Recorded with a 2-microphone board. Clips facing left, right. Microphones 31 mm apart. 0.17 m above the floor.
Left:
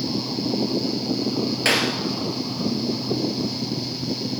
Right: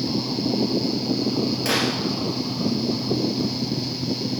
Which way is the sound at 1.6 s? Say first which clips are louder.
Left 4 dB; 65° left (ahead or behind).